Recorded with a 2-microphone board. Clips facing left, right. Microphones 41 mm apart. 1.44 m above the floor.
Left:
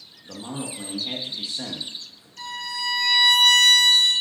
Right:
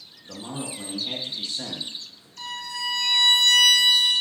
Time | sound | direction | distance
0.2 | a man speaking | 10° left (ahead or behind) | 0.9 m
2.4 | a violin | 10° left (ahead or behind) | 2.5 m